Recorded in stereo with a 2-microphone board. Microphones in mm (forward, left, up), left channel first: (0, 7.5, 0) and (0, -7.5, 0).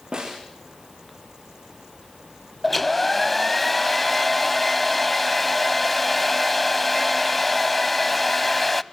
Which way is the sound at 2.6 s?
15° left (ahead or behind).